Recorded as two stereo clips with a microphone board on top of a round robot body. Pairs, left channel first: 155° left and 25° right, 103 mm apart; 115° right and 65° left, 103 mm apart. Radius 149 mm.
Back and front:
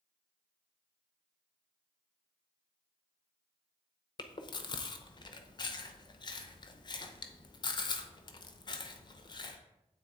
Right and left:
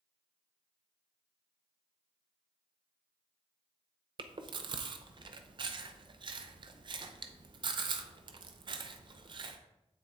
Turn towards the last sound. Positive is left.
turn(degrees=110)